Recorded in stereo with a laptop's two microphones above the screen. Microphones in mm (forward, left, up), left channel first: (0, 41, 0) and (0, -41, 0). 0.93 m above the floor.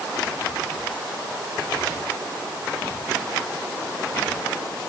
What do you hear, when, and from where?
Only background noise.